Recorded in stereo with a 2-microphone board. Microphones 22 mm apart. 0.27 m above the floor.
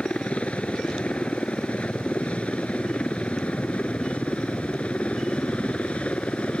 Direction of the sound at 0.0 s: 65° left (ahead or behind).